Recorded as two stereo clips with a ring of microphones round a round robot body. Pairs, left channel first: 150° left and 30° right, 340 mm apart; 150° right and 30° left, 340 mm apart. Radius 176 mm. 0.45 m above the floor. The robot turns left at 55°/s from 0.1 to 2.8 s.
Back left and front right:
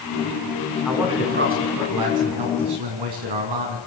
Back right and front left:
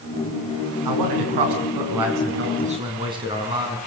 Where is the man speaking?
60° left, 6 m; by 3.8 s 45° right, 6 m.